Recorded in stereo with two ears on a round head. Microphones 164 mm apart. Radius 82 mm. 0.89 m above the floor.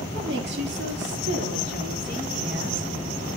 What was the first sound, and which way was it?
A woman speaking, 65° right (ahead or behind).